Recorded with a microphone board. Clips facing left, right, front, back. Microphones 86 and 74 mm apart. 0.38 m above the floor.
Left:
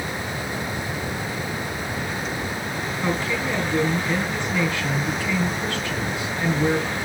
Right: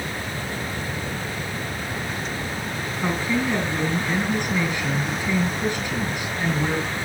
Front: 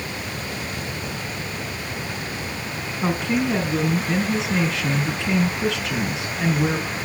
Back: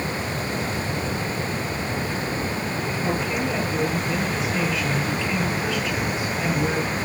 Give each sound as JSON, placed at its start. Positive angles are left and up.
{"t": 3.0, "sound": "a woman speaking", "azimuth_deg": -15, "distance_m": 5.0}